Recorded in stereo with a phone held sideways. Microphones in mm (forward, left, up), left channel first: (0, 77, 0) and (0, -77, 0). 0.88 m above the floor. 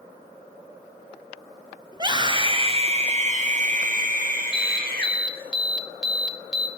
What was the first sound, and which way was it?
A scream, 30° right (ahead or behind).